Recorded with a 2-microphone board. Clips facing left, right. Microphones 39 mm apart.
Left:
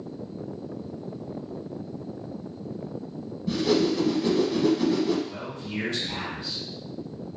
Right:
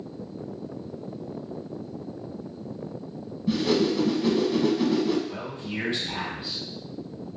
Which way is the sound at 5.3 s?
20° right (ahead or behind).